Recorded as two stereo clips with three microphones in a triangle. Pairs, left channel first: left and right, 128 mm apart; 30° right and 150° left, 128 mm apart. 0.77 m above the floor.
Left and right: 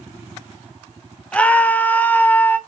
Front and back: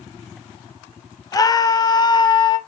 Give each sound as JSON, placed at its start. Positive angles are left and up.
{"t": 1.3, "sound": "a scream", "azimuth_deg": 15, "distance_m": 1.2}